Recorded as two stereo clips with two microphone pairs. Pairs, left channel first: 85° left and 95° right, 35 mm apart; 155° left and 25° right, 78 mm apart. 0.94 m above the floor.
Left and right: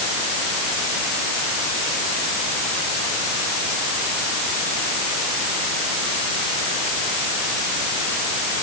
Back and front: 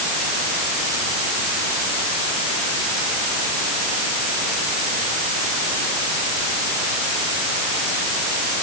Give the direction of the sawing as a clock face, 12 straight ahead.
No sawing in this recording.